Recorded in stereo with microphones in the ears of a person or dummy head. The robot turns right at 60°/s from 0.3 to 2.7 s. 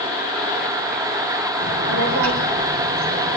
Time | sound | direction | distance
1.6 | a child speaking | 120° right | 3 m